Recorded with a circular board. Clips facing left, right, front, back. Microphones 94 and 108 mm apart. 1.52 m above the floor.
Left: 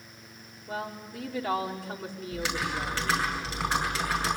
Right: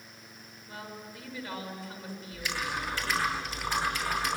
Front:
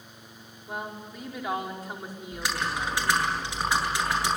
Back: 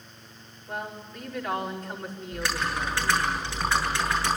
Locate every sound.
0.7 s a woman speaking: 80° left, 5 m
2.3 s typing on a keyboard: 75° left, 8 m